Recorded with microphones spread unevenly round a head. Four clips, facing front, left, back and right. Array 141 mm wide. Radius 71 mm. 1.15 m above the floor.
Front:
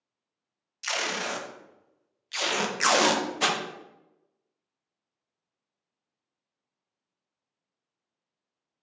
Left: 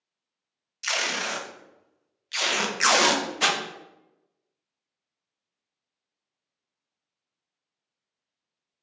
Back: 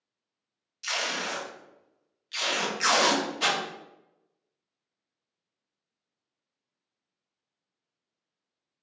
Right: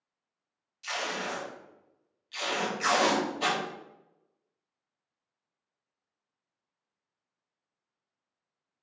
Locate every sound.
0.8 s tape being pulled: 20° left, 0.6 m